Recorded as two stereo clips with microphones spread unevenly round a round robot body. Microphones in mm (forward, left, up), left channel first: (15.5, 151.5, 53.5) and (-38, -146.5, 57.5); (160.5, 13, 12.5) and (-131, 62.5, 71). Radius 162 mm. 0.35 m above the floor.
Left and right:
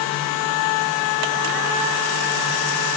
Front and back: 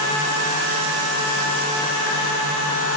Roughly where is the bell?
I don't hear a bell.